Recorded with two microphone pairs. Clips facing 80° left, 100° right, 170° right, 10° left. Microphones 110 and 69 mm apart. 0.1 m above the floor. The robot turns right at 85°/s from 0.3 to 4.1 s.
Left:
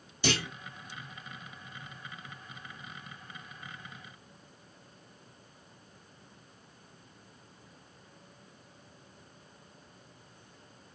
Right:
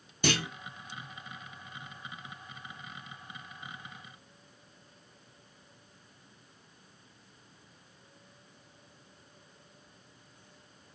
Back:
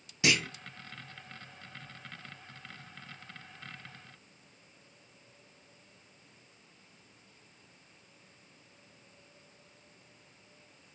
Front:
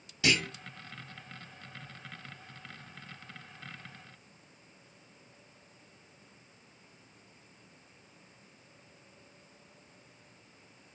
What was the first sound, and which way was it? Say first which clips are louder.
A clunk: right 1 dB, even; 105° right.